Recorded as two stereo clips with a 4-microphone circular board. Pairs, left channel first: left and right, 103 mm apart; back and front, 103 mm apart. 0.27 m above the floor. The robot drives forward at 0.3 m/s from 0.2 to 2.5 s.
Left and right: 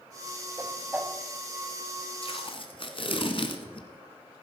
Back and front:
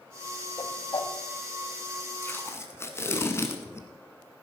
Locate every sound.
0.6 s a whoosh: 160° right, 1.0 m
2.2 s tape being pulled: 115° left, 1.4 m